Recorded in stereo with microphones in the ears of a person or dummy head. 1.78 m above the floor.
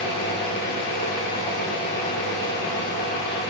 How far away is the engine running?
About 2.5 m.